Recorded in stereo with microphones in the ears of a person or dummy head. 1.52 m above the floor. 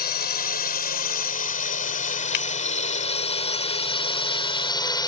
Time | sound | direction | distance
0.0 | a drone | 50° left (ahead or behind) | ?
2.3 | breaking glass | 60° left (ahead or behind) | ?